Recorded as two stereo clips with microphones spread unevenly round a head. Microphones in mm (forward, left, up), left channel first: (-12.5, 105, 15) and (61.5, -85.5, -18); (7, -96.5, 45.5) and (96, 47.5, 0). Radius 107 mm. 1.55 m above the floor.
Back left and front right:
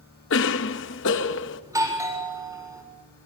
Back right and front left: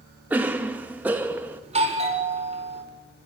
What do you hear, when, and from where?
0.3 s a cough: 145° left, 1.9 m
1.6 s a doorbell: 5° left, 7 m